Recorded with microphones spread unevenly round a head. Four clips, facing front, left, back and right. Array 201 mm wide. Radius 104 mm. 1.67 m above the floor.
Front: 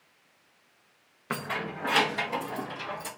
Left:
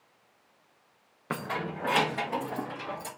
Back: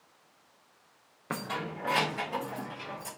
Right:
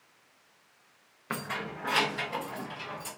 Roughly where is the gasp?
No gasp in this recording.